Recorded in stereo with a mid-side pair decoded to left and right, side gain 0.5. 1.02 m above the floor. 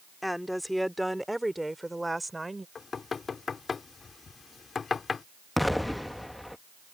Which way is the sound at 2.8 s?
40° left.